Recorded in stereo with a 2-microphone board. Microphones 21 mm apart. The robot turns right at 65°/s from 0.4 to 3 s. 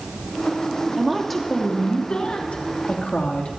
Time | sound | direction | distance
1.0 | a woman speaking | 20° right | 3 m